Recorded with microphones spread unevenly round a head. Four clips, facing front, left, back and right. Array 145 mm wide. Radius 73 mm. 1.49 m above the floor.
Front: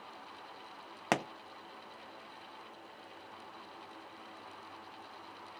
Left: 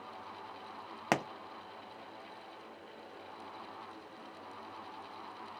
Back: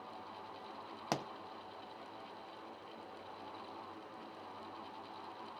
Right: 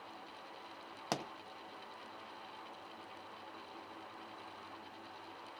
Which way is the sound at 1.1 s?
35° left.